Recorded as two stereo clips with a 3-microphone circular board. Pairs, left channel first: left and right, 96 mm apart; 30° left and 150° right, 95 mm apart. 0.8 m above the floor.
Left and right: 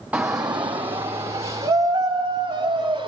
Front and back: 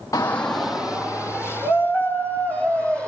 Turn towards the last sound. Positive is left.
turn(degrees=-85)